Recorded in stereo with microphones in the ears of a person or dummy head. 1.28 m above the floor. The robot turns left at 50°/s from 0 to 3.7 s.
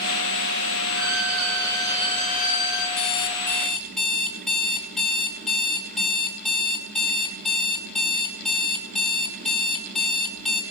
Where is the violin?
160° right, 1.7 m; by 2.9 s 105° left, 1.7 m.